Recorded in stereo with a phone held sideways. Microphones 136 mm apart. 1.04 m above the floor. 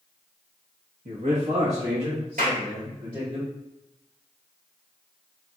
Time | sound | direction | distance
1.1 | a man speaking | 65° right (ahead or behind) | 0.9 m
2.4 | a clap | 85° right | 1.6 m